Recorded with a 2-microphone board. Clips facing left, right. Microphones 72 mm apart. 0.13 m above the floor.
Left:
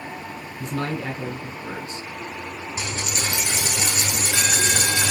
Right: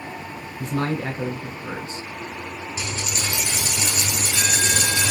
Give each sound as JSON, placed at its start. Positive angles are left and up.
{"t": 0.6, "sound": "a man speaking", "side_deg": -30, "distance_m": 1.2}
{"t": 2.8, "sound": "a dropped coin", "side_deg": 55, "distance_m": 0.9}